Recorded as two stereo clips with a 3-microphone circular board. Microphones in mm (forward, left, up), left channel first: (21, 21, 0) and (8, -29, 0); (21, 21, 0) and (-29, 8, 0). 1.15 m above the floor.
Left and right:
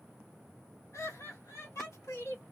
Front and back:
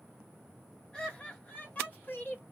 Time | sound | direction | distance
0.9 | laughter | 90° left | 1.7 m